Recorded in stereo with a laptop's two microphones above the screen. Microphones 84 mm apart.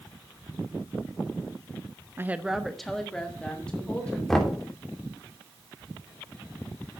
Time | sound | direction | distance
2.2 | a woman speaking | 25° right (ahead or behind) | 0.6 m
4.3 | knocking | 5° left (ahead or behind) | 3 m